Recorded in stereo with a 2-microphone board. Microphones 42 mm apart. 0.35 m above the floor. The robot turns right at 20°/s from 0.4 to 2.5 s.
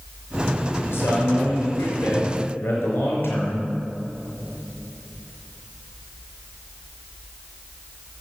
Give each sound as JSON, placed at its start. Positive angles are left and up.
{"t": 0.8, "sound": "a man speaking", "azimuth_deg": 90, "distance_m": 5.0}